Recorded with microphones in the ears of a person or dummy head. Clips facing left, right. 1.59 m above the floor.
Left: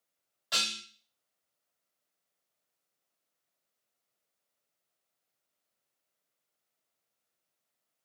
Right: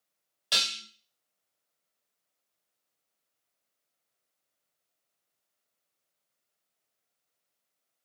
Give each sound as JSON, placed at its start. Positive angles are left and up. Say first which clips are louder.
{"t": 0.5, "sound": "dishes clattering", "louder": "right 1 dB", "side_deg": -40, "distance_m": 1.2}